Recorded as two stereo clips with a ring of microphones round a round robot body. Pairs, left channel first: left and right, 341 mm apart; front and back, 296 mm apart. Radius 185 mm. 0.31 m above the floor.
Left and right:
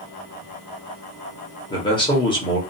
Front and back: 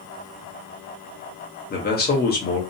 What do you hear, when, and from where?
1.7 s a man speaking: 25° left, 1.0 m